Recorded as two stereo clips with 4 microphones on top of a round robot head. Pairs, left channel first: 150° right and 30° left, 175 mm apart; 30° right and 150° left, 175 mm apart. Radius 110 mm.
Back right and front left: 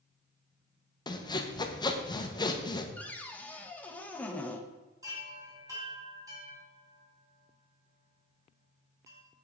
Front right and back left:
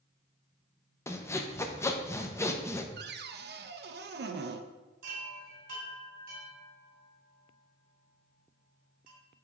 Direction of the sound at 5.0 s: 105° left.